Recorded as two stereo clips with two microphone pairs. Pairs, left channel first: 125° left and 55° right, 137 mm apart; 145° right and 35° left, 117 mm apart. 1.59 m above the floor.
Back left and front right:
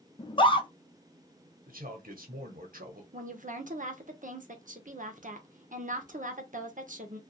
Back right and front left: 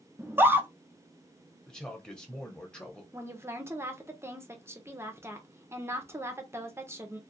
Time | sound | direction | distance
0.2 | a scream | 95° left | 0.5 m
1.7 | a man speaking | 60° right | 1.0 m
3.1 | a woman speaking | 30° right | 0.7 m